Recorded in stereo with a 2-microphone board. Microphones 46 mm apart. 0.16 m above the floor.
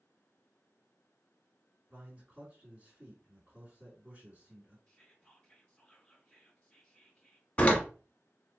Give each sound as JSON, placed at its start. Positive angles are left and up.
{"t": 1.9, "sound": "a man speaking", "side_deg": -30, "distance_m": 2.5}
{"t": 4.9, "sound": "whispering", "side_deg": 20, "distance_m": 2.0}
{"t": 7.6, "sound": "a door slam", "side_deg": 30, "distance_m": 0.9}